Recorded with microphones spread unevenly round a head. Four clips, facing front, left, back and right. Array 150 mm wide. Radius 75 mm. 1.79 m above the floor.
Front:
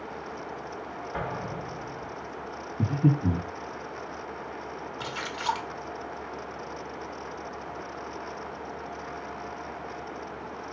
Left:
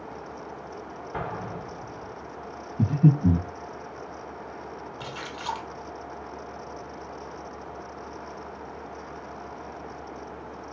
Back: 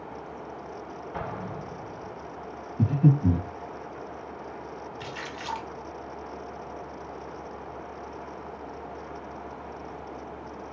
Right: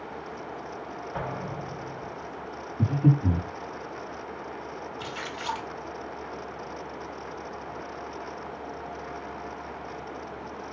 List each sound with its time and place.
1.1 s an explosion: 75° left, 2.5 m
2.8 s breathing: 110° left, 3.5 m
5.0 s a splash: 20° left, 1.2 m